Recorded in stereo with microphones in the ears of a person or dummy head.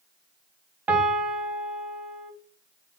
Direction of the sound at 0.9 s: 10° right (ahead or behind).